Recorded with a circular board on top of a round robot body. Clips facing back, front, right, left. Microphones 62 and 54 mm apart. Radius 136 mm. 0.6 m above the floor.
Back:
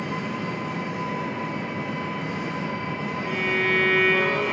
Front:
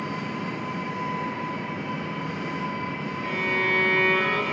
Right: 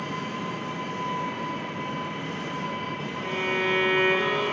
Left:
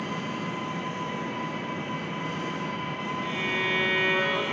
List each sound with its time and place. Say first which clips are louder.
0.0 s an engine running: back 2 dB, even; 160° left, 3.5 m
3.2 s a violin: back 1 dB, right 3 dB; 135° right, 2.5 m